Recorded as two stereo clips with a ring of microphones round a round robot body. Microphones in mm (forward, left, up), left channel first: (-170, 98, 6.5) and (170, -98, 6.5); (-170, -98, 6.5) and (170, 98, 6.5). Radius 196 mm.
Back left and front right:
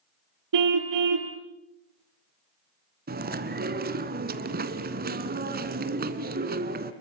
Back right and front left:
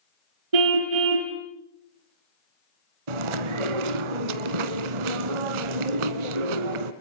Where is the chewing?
40° left, 1.6 m.